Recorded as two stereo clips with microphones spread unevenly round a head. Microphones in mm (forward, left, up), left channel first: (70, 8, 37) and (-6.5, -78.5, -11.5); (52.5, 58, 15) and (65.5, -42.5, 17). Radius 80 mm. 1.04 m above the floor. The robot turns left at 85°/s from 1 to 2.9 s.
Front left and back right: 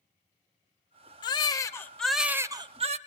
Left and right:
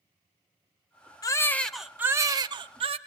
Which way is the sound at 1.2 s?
50° left.